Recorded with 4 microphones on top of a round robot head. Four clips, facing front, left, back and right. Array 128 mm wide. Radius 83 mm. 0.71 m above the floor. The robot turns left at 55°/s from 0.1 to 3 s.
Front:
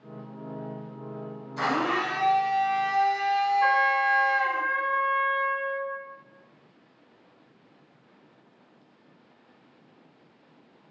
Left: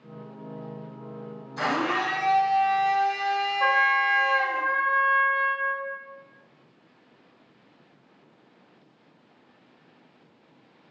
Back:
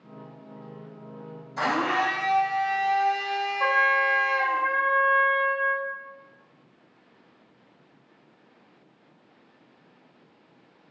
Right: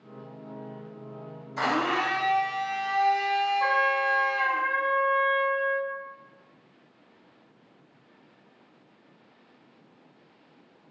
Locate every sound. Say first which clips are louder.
1.6 s a blender: even, back 1 dB; 145° right, 1.8 m; by 4.6 s 140° left, 1.8 m
3.6 s a trumpet: left 2 dB, even; 160° left, 1.3 m